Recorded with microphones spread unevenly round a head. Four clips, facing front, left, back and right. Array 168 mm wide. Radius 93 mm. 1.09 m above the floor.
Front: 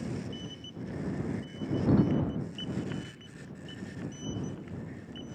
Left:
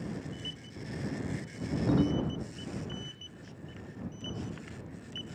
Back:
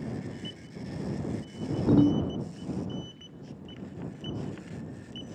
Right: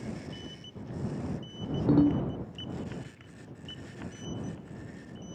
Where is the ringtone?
150° right.